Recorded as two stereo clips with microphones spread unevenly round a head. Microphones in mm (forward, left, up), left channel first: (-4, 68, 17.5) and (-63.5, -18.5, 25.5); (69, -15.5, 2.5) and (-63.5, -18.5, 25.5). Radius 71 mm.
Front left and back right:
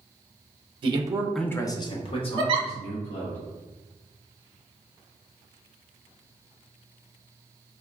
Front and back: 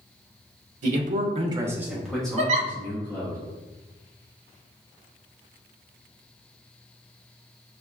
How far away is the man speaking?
About 0.6 m.